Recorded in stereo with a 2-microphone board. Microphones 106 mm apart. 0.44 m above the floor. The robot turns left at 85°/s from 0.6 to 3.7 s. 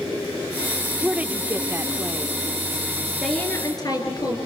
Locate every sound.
1.0 s a woman speaking: 10° right (ahead or behind), 0.7 m
3.2 s a woman speaking: 175° right, 6 m; by 4.4 s 140° left, 6 m